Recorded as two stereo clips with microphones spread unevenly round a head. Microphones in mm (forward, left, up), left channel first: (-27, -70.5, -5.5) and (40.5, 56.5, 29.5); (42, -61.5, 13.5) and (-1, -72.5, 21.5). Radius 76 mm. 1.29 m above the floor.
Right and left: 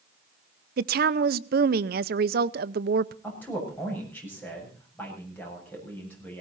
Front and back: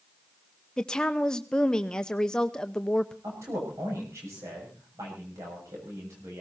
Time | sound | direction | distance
0.8 | a woman speaking | 85° left | 0.7 m
3.2 | a man speaking | 165° left | 7 m